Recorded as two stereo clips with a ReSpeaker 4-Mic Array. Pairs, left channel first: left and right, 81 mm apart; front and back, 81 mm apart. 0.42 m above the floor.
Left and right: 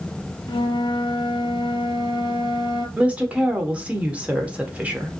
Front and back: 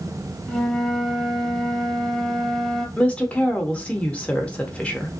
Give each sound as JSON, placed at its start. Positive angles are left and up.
{"t": 0.5, "sound": "a flute", "azimuth_deg": 85, "distance_m": 0.7}
{"t": 3.0, "sound": "a woman speaking", "azimuth_deg": -50, "distance_m": 0.7}